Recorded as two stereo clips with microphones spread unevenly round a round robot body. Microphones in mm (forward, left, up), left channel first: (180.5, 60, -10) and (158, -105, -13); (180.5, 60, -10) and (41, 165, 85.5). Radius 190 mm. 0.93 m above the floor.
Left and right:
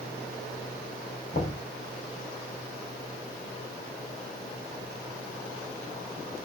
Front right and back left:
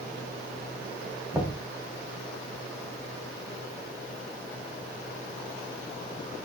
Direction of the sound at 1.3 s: 70° left.